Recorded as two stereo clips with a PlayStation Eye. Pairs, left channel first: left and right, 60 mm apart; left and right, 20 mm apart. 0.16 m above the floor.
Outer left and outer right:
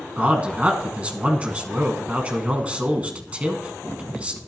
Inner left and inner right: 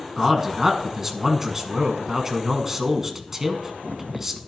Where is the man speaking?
20° right (ahead or behind), 1.3 m.